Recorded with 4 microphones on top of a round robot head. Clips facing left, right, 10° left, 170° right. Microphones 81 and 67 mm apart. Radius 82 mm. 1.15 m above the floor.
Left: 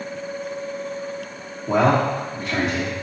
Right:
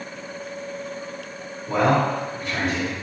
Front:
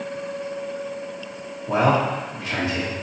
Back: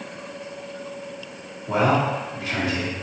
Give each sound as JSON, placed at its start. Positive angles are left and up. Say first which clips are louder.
{"t": 1.7, "sound": "a man speaking", "louder": "left 2 dB, front 1 dB", "azimuth_deg": 85, "distance_m": 1.2}